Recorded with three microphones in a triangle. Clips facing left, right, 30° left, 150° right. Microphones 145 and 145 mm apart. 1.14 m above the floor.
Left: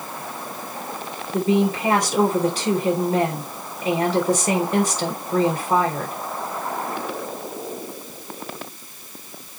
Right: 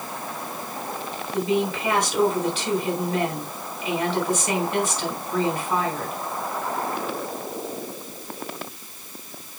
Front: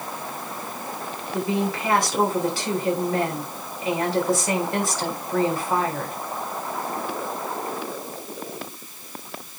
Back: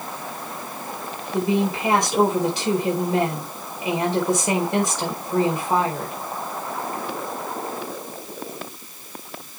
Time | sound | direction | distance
1.3 | a woman speaking | 140° left | 4 m